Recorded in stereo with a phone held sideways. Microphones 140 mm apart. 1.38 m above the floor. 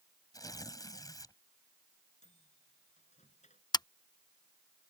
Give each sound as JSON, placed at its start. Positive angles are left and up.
{"t": 0.3, "sound": "tearing paper", "side_deg": 25}
{"t": 2.2, "sound": "a microwave", "side_deg": 55}
{"t": 3.7, "sound": "scissors", "side_deg": 30}